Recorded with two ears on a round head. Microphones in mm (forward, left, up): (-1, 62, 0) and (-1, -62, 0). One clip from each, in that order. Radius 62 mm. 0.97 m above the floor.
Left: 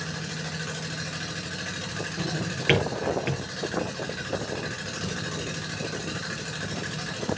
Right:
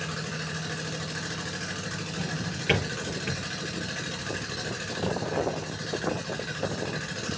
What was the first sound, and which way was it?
A drawer, 70° left (ahead or behind).